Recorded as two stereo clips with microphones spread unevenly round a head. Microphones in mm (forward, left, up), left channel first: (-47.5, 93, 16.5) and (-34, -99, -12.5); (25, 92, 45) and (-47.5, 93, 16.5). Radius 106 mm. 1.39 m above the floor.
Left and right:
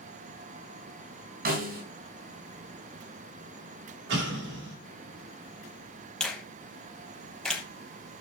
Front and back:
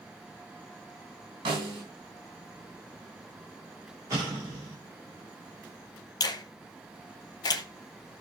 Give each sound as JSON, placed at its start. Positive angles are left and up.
{"t": 1.4, "sound": "a snare drum", "azimuth_deg": -130, "distance_m": 3.5}
{"t": 4.1, "sound": "an explosion", "azimuth_deg": -110, "distance_m": 5.5}
{"t": 6.2, "sound": "a finger snap", "azimuth_deg": 10, "distance_m": 0.9}